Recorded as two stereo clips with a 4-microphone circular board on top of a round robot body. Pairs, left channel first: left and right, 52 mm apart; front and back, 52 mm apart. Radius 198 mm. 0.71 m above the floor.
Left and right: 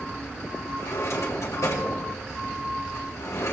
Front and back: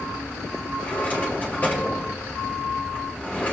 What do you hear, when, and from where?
0.8 s a drawer: 60° left, 1.8 m